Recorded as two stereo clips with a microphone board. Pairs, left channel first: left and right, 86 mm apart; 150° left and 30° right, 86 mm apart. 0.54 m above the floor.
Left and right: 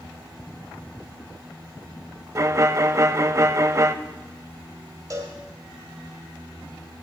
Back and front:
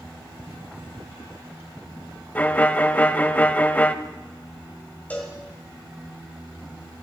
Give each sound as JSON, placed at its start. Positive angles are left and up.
{"t": 2.4, "sound": "a violin", "azimuth_deg": -140, "distance_m": 0.5}
{"t": 5.1, "sound": "a cowbell", "azimuth_deg": -140, "distance_m": 2.0}